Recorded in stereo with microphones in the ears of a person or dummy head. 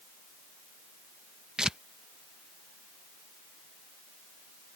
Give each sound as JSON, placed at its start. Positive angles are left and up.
{"t": 1.6, "sound": "tearing paper", "side_deg": 0}